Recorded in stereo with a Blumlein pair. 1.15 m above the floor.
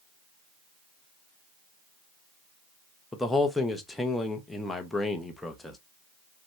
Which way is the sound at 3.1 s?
5° left.